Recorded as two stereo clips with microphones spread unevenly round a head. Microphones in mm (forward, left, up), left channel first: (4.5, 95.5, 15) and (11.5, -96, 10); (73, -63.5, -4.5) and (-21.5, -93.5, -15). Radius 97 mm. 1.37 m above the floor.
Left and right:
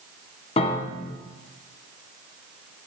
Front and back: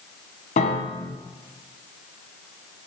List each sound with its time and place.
0.6 s a piano: 30° left, 0.8 m